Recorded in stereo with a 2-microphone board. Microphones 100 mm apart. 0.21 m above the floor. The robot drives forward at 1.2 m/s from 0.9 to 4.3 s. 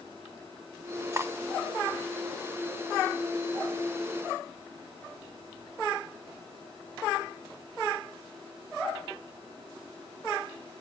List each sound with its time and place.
1.1 s cutlery clinking: 30° right (ahead or behind), 0.6 m; by 1.3 s 25° right (ahead or behind), 0.7 m